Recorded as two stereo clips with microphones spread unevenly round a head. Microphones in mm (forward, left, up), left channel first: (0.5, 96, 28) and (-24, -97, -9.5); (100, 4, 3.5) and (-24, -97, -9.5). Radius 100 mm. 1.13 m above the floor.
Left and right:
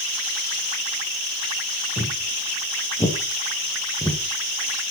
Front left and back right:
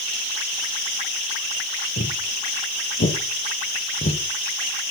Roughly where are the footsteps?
Ahead.